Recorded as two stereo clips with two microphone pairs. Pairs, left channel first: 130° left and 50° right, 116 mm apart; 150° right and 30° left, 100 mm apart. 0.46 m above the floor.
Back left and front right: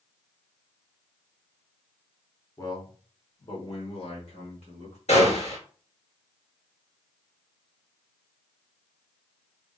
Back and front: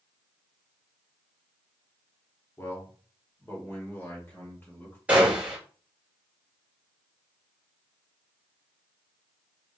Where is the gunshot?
105° left, 1.6 m.